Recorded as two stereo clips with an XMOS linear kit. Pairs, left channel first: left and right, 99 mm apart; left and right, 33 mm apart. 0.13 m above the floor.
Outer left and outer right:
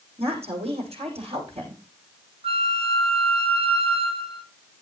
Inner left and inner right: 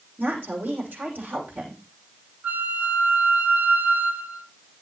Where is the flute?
70° right (ahead or behind), 0.9 m.